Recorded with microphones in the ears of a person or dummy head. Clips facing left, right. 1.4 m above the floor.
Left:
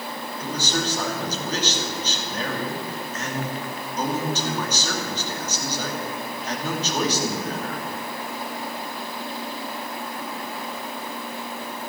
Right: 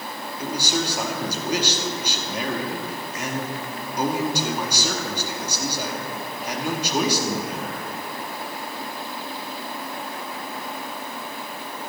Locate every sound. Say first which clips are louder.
0.4 s a man speaking: right 1 dB; 15° right (ahead or behind), 2.5 m